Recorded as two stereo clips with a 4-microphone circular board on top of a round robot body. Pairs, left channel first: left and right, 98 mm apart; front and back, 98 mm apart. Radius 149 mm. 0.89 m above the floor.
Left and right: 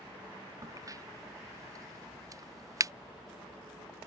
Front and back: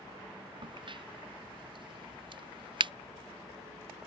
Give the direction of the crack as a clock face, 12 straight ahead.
5 o'clock.